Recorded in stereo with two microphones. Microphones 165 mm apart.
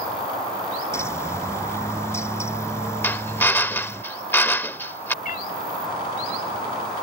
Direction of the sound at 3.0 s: 10° left (ahead or behind).